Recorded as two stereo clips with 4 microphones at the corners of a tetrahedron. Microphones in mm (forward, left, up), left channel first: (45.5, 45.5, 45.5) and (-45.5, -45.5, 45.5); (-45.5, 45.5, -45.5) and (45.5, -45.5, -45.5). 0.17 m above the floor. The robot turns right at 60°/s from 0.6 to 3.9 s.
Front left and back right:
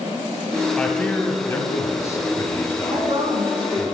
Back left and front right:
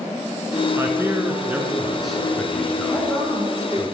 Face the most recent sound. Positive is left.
turn(degrees=-85)